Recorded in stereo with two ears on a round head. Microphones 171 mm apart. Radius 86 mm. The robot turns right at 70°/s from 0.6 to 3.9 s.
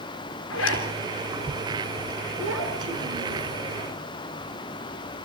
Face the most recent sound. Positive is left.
turn(degrees=10)